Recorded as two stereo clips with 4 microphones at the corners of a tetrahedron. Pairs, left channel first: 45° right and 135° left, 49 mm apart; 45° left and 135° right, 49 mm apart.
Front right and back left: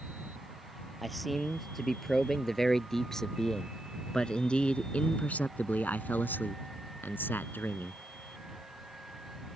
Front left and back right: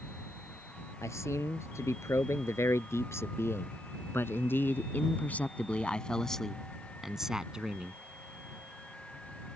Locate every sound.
1.0 s a man speaking: 45° left; by 8.0 s 75° right